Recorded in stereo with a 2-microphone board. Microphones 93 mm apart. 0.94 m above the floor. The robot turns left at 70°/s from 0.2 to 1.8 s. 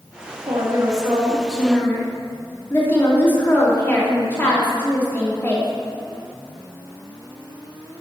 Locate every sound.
0.5 s a woman speaking: 110° right, 2.5 m; by 5.7 s 160° left, 2.5 m